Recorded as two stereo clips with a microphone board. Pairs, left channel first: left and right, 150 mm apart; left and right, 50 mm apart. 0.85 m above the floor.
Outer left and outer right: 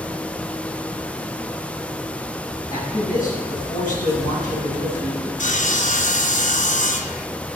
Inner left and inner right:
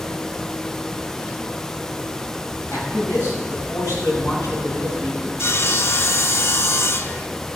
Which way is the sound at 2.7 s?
70° left (ahead or behind).